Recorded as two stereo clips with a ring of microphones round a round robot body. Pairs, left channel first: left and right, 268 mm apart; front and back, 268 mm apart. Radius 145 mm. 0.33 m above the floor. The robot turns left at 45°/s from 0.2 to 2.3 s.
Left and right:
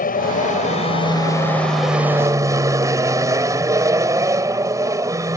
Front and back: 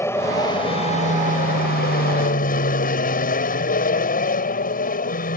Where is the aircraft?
70° left; by 5.4 s 20° right.